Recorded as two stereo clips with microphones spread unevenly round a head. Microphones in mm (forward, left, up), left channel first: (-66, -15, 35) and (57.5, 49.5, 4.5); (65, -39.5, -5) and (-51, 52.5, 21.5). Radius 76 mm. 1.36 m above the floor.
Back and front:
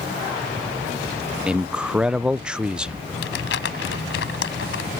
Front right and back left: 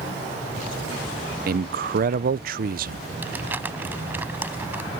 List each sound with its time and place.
1.5 s a man speaking: 110° left
3.2 s crumpling: 140° right